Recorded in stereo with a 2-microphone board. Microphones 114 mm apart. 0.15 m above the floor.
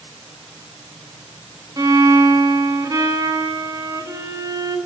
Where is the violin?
30° right (ahead or behind), 1.0 m.